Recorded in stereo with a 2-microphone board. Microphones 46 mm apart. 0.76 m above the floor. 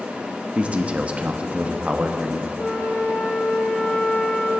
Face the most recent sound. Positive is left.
turn(degrees=35)  # may be behind; listen again after turning